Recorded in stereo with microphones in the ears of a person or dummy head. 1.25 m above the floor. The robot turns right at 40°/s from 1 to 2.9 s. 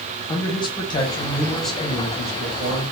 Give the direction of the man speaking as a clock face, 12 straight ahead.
7 o'clock.